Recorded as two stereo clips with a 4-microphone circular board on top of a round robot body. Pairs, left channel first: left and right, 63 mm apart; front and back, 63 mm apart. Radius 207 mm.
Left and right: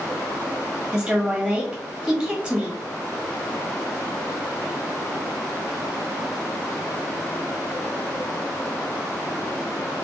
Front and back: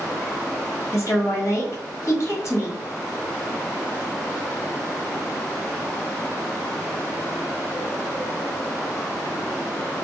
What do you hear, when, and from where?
0.9 s a woman speaking: 15° right, 1.7 m